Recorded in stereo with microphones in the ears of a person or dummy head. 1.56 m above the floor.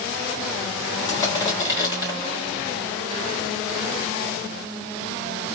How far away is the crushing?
About 2.5 m.